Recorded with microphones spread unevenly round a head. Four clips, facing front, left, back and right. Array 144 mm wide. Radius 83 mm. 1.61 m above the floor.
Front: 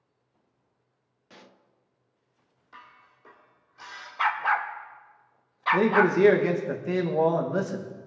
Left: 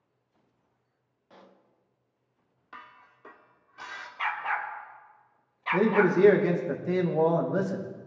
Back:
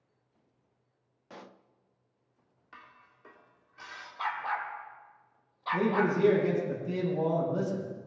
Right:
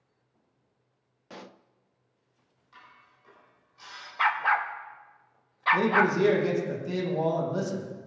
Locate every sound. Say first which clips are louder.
1.3 s a pop: right 8 dB, back 4 dB; 80° right, 0.6 m
2.7 s dishes clattering: left 6 dB, front 3 dB; 95° left, 2.5 m
4.2 s a dog barking: right 6 dB, front 8 dB; 30° right, 1.0 m
5.7 s a man speaking: left 2 dB, front 6 dB; 20° left, 2.5 m